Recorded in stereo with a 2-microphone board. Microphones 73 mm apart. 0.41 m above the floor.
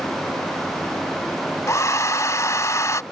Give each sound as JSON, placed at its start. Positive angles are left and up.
{"t": 1.7, "sound": "a hair dryer", "side_deg": 45}